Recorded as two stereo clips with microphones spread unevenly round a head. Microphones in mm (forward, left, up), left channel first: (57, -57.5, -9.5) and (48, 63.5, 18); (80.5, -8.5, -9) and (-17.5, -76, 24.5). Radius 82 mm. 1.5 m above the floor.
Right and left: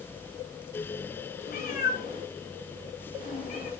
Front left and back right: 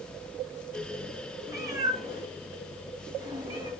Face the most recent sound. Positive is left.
turn(degrees=-100)